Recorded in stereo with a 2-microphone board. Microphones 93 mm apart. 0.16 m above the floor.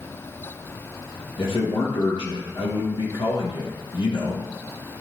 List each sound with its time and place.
1.4 s a man speaking: 75° left (ahead or behind), 4 m